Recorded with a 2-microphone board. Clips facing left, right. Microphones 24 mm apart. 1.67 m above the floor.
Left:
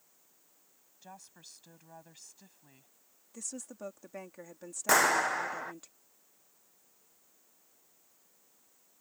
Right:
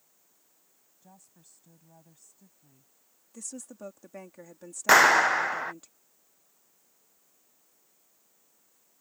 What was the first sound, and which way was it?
A woman speaking, 85° left.